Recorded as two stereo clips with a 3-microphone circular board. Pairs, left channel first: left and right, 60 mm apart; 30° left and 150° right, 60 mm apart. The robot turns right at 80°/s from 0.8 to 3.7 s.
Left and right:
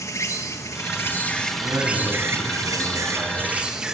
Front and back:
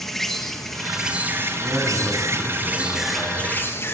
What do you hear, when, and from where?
0.0 s an insect: 115° left, 3 m; by 3.9 s 15° right, 3 m
1.6 s a man speaking: 115° right, 9.5 m; by 3.5 s 45° left, 9.5 m